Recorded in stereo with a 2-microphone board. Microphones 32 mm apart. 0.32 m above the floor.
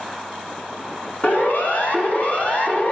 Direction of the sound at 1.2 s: 55° left (ahead or behind).